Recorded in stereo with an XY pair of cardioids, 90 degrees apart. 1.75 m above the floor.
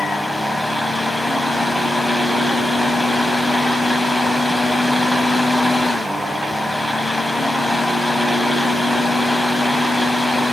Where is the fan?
5° left, 1.6 m.